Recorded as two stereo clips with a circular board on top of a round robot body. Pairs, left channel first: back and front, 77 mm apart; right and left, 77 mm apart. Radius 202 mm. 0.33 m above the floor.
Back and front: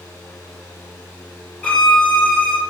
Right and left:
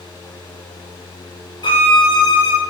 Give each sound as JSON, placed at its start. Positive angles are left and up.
{"t": 1.6, "sound": "a violin", "azimuth_deg": -100, "distance_m": 0.9}